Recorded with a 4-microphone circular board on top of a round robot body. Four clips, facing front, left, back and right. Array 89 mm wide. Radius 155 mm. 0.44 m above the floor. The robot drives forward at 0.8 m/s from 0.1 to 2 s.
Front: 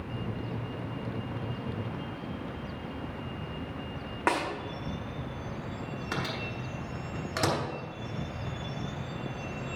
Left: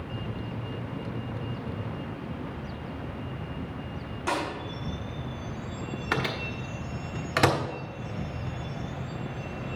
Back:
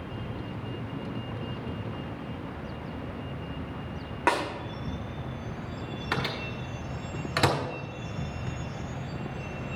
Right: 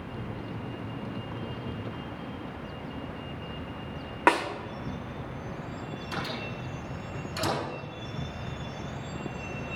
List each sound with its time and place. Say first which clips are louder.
4.3 s a snare drum: right 6 dB, back 2 dB; 95° right, 2 m
6.1 s a microwave: left 5 dB, back 3 dB; 110° left, 1.6 m